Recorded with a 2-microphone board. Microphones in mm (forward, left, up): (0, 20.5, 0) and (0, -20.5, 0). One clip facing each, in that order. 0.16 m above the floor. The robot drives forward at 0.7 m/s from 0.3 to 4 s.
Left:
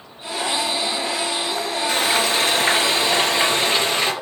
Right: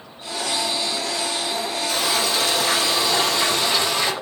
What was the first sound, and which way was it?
Frying, 50° left (ahead or behind).